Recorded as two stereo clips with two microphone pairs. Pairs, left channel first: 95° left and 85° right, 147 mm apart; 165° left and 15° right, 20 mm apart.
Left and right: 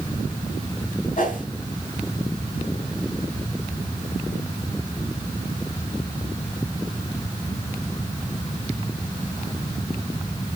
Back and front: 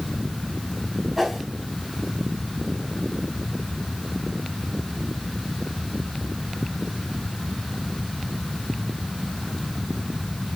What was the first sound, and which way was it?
A whoosh, 65° left.